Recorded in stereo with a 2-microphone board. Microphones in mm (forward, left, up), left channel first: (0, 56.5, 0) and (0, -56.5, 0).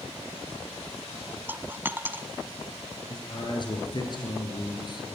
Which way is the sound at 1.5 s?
15° right (ahead or behind).